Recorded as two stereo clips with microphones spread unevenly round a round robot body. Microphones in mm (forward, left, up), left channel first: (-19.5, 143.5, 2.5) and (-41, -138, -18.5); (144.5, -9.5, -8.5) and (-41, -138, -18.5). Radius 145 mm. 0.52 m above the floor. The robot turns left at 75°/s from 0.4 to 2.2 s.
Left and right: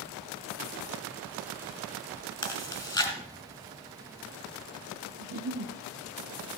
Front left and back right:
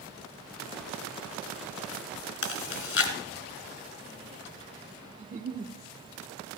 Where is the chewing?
10° left, 1.9 m.